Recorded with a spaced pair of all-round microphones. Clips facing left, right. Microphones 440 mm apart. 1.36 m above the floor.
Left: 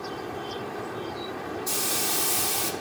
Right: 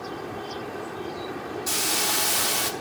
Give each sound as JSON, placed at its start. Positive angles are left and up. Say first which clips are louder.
{"t": 1.7, "sound": "a hiss", "louder": "right 1 dB", "side_deg": -80, "distance_m": 1.4}